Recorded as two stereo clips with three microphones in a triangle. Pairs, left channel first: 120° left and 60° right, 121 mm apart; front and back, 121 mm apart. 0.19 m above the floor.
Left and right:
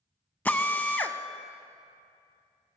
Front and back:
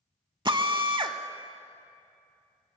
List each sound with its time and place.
0.5 s a drill: 170° right, 0.5 m